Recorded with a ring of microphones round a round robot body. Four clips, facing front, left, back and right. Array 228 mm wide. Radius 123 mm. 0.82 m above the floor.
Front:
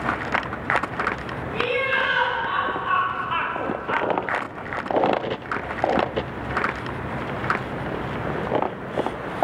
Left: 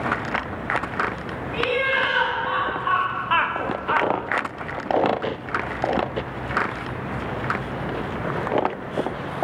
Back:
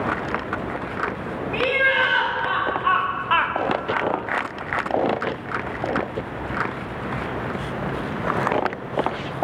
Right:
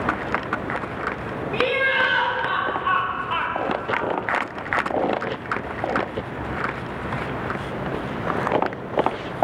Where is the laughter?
140° right, 1.9 m; by 4.1 s 75° left, 0.9 m.